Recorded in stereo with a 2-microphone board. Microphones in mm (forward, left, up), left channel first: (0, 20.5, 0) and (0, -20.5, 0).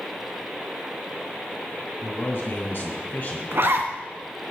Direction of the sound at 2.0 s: 50° left (ahead or behind).